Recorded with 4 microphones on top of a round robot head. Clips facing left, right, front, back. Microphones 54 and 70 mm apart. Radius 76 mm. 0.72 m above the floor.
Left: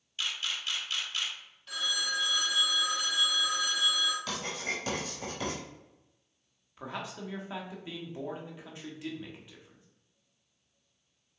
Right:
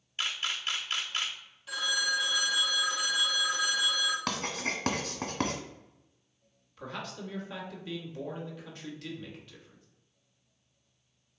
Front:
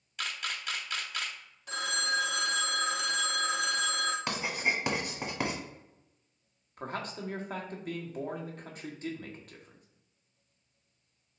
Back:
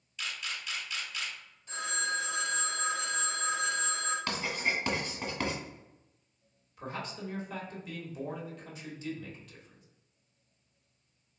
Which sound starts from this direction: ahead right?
A camera shutter, at 0.2 s.